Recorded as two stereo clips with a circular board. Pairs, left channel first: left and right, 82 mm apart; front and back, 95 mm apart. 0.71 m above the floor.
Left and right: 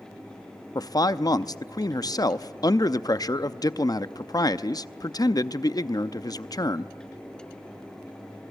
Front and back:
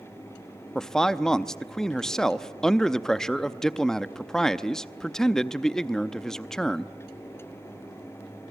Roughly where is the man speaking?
Left.